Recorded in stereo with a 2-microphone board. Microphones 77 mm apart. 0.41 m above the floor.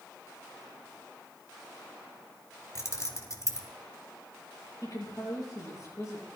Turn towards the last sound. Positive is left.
turn(degrees=45)  # may be behind; listen again after turning